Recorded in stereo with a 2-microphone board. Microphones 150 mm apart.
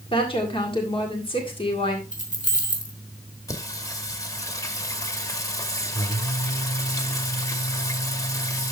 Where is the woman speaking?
35° left (ahead or behind), 1.8 m.